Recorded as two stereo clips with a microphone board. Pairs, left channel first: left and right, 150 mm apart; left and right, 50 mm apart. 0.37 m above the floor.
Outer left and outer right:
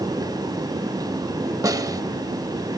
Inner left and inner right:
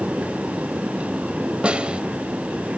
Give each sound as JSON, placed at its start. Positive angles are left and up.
{"t": 1.6, "sound": "a snare drum", "side_deg": -25, "distance_m": 0.6}